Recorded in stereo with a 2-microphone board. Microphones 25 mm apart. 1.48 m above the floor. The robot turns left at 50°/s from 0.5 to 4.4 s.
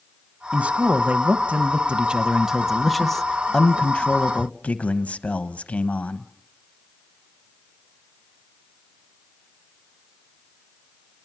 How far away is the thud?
I don't hear a thud.